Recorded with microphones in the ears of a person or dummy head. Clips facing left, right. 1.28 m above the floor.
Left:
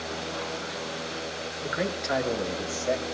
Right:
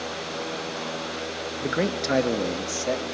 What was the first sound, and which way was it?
A man speaking, 50° right (ahead or behind).